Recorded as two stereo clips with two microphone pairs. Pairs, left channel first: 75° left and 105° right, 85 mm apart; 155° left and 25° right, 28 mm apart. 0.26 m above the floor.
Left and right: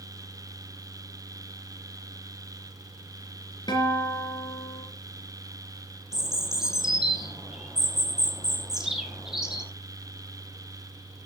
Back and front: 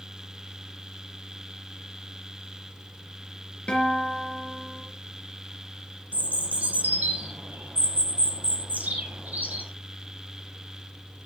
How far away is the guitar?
About 3.5 m.